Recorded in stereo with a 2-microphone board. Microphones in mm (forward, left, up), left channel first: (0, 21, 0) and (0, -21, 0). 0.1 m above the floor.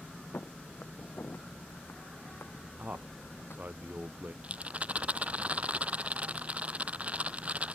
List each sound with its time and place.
0.3 s footsteps: 60° left (ahead or behind); by 3.6 s 85° left
2.8 s a man speaking: 45° right (ahead or behind)
4.4 s a rattle: 35° right (ahead or behind)